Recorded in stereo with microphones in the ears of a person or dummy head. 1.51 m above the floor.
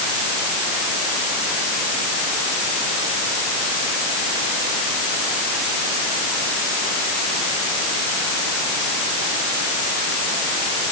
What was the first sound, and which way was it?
Only background noise.